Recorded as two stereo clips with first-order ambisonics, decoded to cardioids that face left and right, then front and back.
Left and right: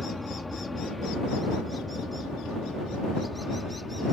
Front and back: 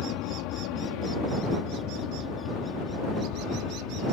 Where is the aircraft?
5° left; by 4.1 s 10° left.